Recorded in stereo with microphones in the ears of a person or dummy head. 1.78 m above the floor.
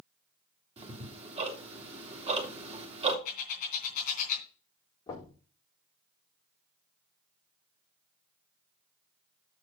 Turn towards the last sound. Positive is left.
turn(degrees=15)  # may be behind; listen again after turning